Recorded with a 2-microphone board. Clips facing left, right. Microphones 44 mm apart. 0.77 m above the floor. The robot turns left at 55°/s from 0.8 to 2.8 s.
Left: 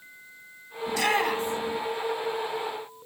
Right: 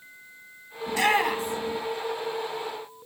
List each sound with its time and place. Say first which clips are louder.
0.9 s a shout: right 2 dB; 40° right (ahead or behind), 1.9 m; by 1.8 s 10° left (ahead or behind), 1.9 m